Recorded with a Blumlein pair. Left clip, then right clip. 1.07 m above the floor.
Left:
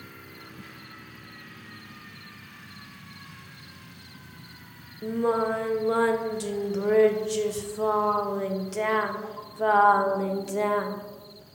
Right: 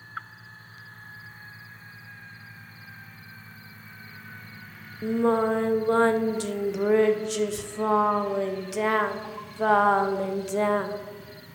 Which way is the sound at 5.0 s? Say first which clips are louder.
Right 2 dB; 10° right.